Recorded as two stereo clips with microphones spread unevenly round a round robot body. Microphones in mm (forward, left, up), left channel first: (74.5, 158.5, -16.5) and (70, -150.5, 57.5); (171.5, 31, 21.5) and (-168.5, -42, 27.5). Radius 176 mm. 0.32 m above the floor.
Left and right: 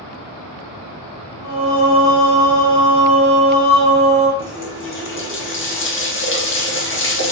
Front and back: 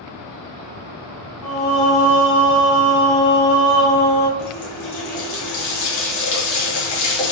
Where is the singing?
5° right, 1.8 m.